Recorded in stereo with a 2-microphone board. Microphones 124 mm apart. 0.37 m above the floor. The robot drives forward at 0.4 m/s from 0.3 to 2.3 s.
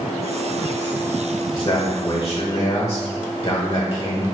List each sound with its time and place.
1.5 s a man speaking: 35° left (ahead or behind), 1.1 m